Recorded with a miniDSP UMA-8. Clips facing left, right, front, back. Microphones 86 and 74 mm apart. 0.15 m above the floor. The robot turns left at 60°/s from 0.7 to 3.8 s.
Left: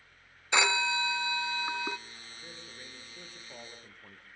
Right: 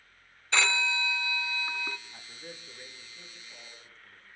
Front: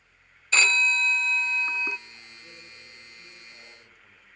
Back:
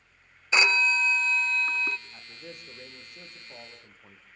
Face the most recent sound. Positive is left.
turn(degrees=120)